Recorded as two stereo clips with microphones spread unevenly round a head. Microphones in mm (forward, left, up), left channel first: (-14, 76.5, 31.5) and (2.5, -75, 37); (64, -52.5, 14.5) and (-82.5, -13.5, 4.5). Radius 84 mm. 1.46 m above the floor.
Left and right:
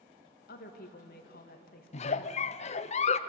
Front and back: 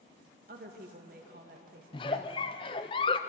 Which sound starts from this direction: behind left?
A woman speaking, at 0.5 s.